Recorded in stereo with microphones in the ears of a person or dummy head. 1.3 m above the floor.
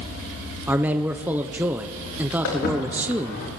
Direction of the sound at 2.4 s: 65° left (ahead or behind).